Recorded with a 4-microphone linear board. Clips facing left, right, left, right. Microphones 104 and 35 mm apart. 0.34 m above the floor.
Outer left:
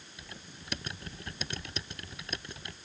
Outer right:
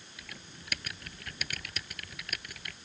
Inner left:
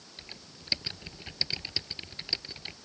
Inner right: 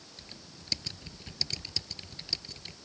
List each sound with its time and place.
0.2 s typing on a keyboard: 25° left (ahead or behind)